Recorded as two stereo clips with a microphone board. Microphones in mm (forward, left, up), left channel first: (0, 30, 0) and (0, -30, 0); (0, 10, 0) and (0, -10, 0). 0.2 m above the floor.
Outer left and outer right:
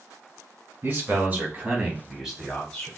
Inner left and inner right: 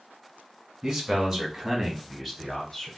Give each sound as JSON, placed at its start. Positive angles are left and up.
{"t": 0.8, "sound": "a man speaking", "side_deg": -40, "distance_m": 1.5}